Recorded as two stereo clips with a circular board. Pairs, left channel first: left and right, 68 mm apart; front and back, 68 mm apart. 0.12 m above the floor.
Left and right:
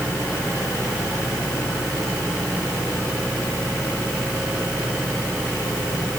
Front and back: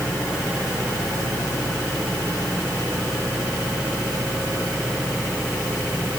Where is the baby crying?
I don't hear a baby crying.